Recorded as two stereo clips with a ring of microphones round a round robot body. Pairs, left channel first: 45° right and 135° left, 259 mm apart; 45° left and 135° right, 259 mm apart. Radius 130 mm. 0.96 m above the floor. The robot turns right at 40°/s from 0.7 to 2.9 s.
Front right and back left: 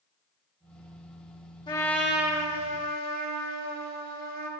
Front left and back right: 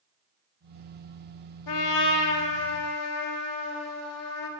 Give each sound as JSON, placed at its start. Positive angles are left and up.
{"t": 1.7, "sound": "a trumpet", "azimuth_deg": 30, "distance_m": 2.0}